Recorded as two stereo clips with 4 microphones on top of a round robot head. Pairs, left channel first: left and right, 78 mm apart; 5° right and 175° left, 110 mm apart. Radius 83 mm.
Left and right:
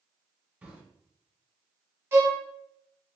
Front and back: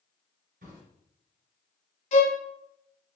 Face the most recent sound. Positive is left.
turn(degrees=-25)